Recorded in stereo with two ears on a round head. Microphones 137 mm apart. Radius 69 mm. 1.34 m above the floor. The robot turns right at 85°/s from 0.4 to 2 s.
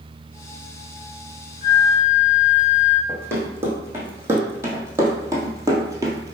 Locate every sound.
1.6 s a flute: 25° left, 1.3 m; by 3.0 s 55° left, 1.3 m
3.1 s running footsteps: 15° right (ahead or behind), 3 m; by 6.3 s 25° right (ahead or behind), 1.4 m